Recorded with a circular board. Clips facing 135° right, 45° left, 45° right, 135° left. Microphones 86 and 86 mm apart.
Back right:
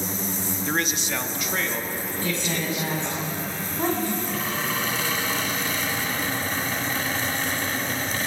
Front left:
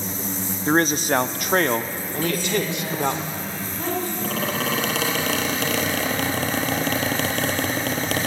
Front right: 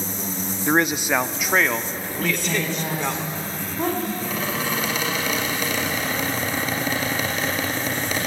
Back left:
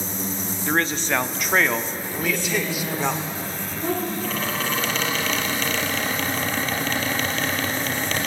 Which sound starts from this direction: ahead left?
A squeak, at 4.2 s.